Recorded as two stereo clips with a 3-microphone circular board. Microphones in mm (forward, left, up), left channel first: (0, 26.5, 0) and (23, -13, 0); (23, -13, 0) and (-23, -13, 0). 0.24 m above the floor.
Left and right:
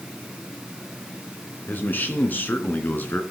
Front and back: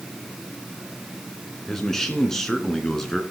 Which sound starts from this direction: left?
A man speaking, at 1.7 s.